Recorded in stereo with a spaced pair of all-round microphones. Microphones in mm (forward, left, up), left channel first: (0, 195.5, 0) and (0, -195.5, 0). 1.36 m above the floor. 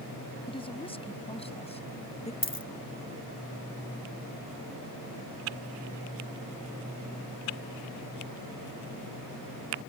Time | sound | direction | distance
0.5 | a woman speaking | 15° left (ahead or behind) | ?
2.4 | a dropped coin | 65° left (ahead or behind) | ?